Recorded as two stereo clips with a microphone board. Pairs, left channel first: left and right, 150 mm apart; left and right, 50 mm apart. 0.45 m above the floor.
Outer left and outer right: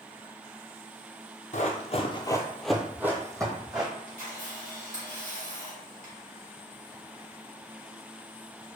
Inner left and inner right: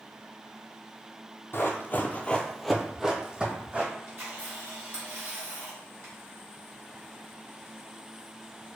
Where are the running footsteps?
55° left (ahead or behind), 0.7 m; by 3.9 s 30° right (ahead or behind), 1.2 m.